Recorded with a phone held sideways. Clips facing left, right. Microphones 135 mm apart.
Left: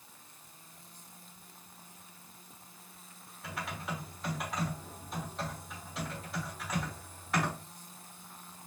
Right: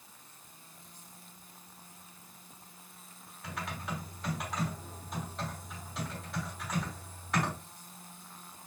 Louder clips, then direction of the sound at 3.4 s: Even; centre (ahead or behind).